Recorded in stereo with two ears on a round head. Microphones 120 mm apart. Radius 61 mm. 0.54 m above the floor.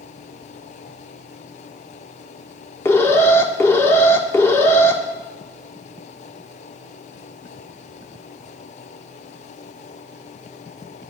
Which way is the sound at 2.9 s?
20° left (ahead or behind).